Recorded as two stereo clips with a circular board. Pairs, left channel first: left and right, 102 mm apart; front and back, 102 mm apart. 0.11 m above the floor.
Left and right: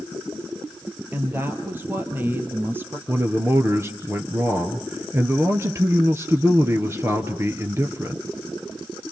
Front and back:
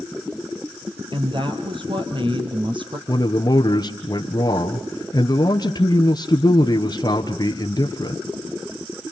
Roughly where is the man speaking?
Ahead right.